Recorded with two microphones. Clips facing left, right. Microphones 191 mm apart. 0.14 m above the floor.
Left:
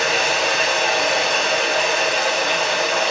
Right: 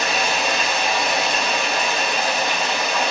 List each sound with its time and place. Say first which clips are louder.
0.0 s running water: left 2 dB; 85° left, 6 m